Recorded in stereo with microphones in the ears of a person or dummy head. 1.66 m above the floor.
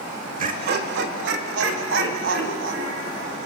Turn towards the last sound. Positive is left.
turn(degrees=-85)